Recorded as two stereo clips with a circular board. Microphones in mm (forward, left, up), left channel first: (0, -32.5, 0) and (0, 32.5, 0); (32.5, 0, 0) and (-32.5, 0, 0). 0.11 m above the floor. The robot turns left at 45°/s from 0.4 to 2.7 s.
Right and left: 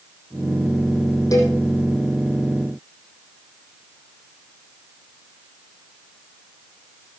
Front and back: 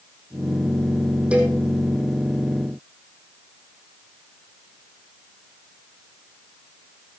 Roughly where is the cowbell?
Right.